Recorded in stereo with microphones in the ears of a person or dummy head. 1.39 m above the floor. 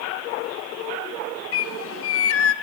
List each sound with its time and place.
1.5 s a bird: 70° left (ahead or behind), 0.6 m